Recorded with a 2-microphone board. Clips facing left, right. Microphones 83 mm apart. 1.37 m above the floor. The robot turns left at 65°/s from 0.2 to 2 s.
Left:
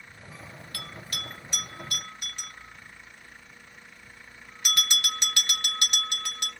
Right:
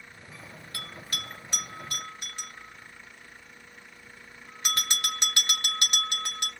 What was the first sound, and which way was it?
A bell, 25° right (ahead or behind).